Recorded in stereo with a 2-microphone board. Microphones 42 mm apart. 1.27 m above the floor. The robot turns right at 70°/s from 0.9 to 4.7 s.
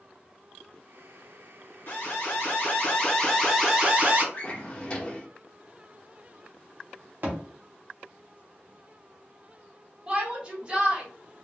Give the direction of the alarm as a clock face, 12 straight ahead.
10 o'clock.